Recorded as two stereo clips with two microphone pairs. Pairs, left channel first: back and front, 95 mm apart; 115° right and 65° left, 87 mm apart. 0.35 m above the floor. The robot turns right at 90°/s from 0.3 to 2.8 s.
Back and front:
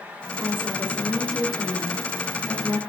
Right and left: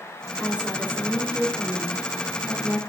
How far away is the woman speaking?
About 1.1 m.